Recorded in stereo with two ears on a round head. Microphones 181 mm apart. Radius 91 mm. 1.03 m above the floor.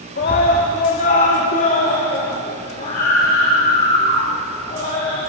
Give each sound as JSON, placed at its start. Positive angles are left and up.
{"t": 0.2, "sound": "a scream", "side_deg": 45, "distance_m": 2.5}